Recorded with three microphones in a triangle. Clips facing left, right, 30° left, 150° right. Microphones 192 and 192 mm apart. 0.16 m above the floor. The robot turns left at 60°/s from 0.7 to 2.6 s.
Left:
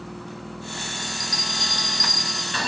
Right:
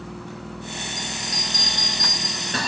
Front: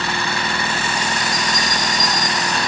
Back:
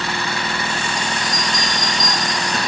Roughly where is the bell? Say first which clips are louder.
Right 1 dB, front 1 dB; ahead right.